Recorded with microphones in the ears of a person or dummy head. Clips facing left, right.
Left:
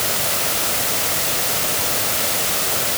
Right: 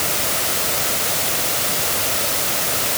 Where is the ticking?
I don't hear ticking.